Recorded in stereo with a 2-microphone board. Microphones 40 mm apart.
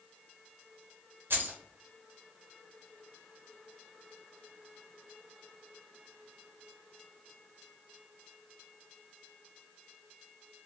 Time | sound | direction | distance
1.3 | keys jangling | 65° right (ahead or behind) | 0.7 m